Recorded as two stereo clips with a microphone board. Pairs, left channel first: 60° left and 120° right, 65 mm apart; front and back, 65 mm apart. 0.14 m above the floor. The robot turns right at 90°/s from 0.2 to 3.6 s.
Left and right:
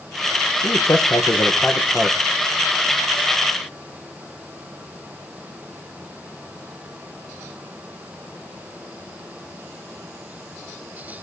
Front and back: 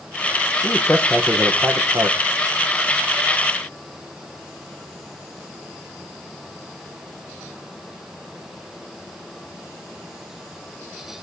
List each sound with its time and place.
0.6 s a man speaking: 35° left, 5.5 m; by 2.2 s 170° left, 5.5 m